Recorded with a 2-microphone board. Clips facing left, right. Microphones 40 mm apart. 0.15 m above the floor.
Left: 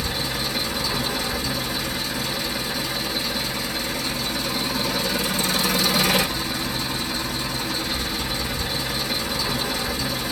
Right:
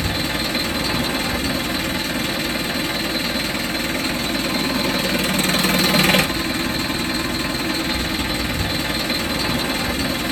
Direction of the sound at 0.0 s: 45° right (ahead or behind).